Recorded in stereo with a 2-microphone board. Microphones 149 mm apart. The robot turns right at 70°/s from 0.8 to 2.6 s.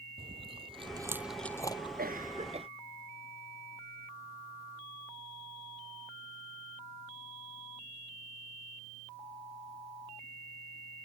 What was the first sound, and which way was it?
Chewing, 40° right (ahead or behind).